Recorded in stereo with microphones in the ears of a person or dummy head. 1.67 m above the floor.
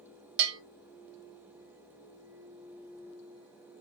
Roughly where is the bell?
Right.